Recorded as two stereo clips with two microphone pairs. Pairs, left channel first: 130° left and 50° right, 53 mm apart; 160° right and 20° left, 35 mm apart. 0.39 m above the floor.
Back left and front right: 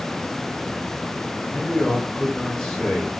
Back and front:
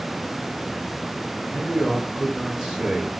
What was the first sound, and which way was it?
A man speaking, 80° left.